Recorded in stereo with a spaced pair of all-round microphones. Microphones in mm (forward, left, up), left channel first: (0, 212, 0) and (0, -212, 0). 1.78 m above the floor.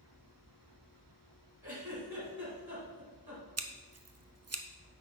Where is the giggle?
55° right (ahead or behind), 3 m.